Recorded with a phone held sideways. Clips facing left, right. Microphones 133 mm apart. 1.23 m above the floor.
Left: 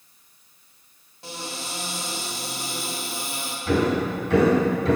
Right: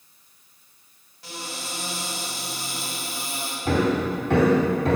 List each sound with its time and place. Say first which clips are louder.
1.2 s a cupboard door: left 1 dB; 25° left (ahead or behind), 1.9 m
3.6 s hammering: even; 60° right (ahead or behind), 2.5 m